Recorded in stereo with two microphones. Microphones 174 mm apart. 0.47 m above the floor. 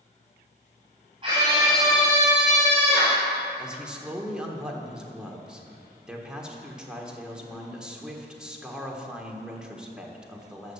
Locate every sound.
1.2 s a scream: 30° right (ahead or behind), 3.5 m; by 3.3 s 35° left (ahead or behind), 1.6 m
3.6 s a man speaking: 5° right (ahead or behind), 1.5 m